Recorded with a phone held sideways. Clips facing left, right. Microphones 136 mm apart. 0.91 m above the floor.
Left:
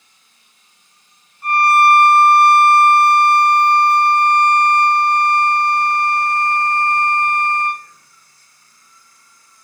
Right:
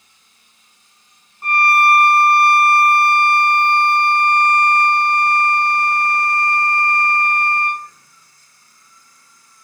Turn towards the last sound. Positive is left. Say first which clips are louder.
# left 3 dB
turn(degrees=-60)  # may be behind; listen again after turning